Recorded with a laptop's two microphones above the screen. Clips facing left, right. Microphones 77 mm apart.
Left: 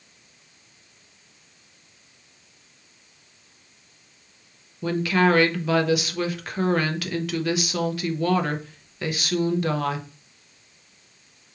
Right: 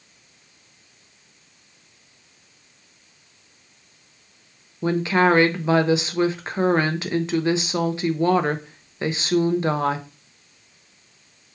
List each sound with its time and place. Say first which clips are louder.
4.8 s a woman speaking: right 2 dB; 25° right (ahead or behind), 0.6 m